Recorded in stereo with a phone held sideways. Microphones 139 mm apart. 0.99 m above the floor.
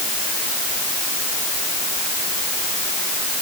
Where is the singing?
No singing in this recording.